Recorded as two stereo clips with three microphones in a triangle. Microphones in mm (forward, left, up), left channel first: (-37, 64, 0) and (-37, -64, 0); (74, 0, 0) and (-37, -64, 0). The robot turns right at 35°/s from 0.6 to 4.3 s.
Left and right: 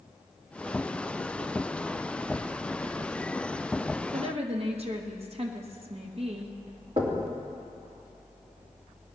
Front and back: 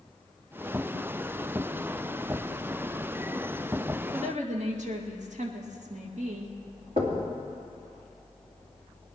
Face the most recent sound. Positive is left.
turn(degrees=-130)